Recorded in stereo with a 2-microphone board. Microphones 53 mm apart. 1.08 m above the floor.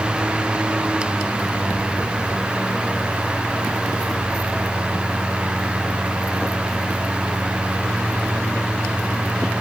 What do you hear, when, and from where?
Only background noise.